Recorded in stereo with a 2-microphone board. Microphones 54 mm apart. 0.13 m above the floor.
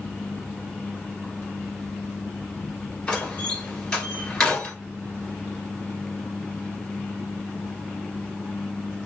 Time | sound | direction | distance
3.1 | a door slam | 15° left (ahead or behind) | 1.9 m